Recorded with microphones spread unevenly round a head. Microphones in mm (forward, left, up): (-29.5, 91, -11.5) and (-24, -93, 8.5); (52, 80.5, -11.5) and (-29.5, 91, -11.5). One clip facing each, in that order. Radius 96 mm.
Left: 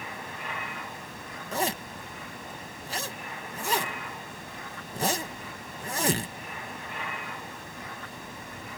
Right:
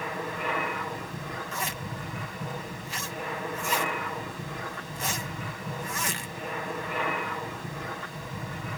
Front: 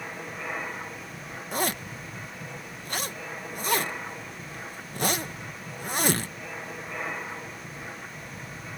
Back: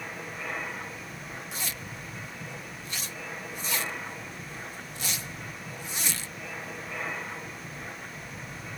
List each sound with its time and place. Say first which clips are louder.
0.0 s an aircraft: right 7 dB, front 1 dB; 90° right
1.5 s a zipper: left 4 dB, front 9 dB; 30° left